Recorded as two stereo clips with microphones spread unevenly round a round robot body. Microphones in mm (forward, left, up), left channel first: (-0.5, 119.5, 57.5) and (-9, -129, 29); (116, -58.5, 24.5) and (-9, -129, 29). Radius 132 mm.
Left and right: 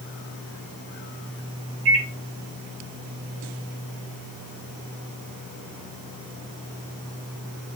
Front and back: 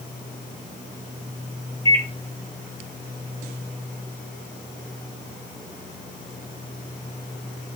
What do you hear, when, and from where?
1.9 s a microwave: 105° right, 3 m